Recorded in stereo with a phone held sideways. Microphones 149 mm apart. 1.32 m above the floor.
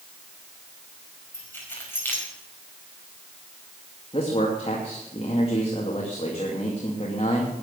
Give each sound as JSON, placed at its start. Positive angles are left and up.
{"t": 1.3, "sound": "keys jangling", "side_deg": 15, "distance_m": 5.0}
{"t": 4.1, "sound": "a man speaking", "side_deg": 45, "distance_m": 2.5}